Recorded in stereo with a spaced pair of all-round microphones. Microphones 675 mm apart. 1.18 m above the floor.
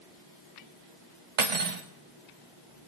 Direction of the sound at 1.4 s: 70° right (ahead or behind).